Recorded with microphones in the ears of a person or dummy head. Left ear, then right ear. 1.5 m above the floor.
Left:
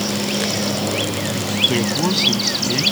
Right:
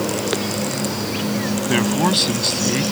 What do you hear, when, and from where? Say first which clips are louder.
1.7 s a man speaking: right 1 dB; 25° right (ahead or behind); by 2.8 s 15° right (ahead or behind)